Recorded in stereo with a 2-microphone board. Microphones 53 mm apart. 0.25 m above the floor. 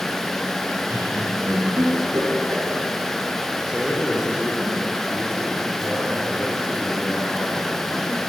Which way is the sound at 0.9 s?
55° right (ahead or behind).